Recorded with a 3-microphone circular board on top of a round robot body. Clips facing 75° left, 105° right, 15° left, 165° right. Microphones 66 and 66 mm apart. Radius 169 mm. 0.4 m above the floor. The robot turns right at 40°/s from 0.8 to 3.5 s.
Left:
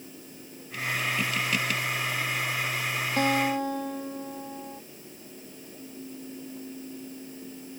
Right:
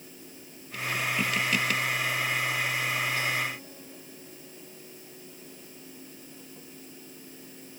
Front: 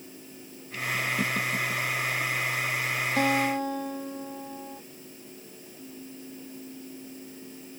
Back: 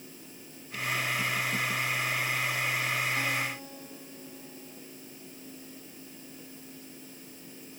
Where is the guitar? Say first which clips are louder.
Left 6 dB, front 7 dB; 30° left; by 4.8 s 45° left.